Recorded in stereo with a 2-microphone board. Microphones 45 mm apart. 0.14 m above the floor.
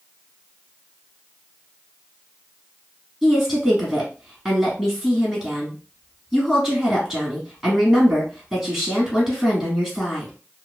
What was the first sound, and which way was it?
A woman speaking, centre (ahead or behind).